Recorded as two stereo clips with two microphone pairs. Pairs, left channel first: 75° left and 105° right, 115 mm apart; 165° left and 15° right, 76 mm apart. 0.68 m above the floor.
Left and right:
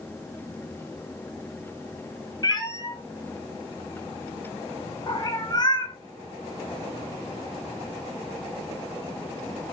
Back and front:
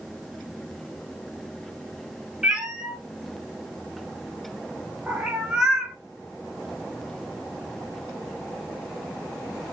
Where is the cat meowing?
65° left, 0.7 m.